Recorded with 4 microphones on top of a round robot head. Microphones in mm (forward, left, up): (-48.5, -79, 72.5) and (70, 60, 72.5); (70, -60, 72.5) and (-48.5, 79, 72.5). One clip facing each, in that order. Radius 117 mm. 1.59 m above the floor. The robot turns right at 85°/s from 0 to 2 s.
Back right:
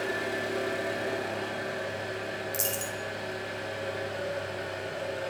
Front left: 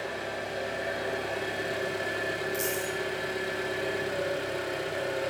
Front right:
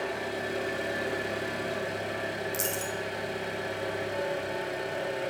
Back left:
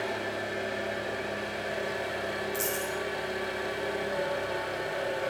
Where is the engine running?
150° right, 3 m; by 5.3 s 20° left, 3 m.